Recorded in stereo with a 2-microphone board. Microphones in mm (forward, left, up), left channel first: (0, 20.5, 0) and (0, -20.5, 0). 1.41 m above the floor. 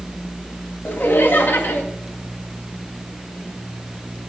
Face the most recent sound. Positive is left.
turn(degrees=65)  # may be behind; listen again after turning